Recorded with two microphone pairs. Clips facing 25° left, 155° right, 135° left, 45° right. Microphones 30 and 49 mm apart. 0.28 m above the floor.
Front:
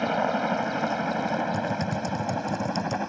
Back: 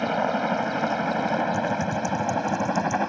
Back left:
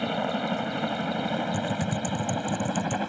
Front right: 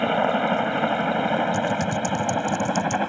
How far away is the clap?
I don't hear a clap.